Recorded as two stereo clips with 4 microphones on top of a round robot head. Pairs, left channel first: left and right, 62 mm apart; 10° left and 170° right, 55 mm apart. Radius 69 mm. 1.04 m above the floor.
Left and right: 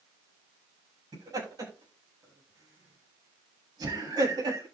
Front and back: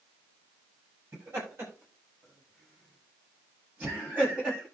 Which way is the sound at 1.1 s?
120° right.